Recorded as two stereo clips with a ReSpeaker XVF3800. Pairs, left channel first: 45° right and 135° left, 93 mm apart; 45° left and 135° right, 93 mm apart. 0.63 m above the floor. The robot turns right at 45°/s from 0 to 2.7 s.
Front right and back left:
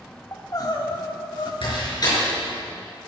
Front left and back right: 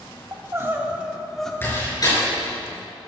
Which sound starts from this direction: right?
Crying, at 0.3 s.